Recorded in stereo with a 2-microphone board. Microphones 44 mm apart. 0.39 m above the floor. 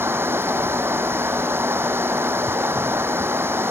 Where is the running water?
65° right (ahead or behind).